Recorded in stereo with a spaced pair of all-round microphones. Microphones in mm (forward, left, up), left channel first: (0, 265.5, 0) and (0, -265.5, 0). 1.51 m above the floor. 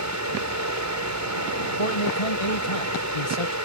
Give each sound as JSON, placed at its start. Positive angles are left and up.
{"t": 0.0, "sound": "a fan", "side_deg": -30}
{"t": 1.8, "sound": "a man speaking", "side_deg": 85}